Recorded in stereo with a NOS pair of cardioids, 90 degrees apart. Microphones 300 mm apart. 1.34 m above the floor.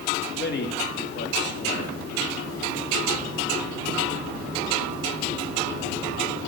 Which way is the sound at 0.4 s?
35° left.